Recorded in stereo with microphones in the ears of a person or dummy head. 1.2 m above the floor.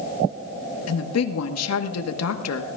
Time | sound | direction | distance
0.9 | a woman speaking | 70° left (ahead or behind) | 1.4 m